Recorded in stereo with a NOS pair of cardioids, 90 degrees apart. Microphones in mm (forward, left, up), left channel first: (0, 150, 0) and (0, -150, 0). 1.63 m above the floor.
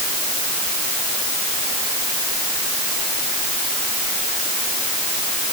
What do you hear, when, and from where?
Only background noise.